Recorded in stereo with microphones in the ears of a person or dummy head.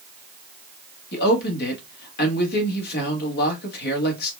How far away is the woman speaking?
About 1.4 m.